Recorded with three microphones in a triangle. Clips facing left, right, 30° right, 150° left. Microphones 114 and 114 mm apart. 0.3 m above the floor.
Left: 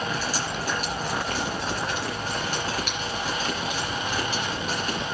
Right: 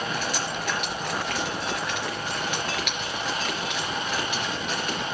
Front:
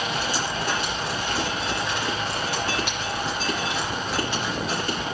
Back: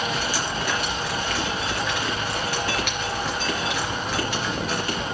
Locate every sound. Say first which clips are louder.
0.1 s dripping: even, even; 35° left, 4 m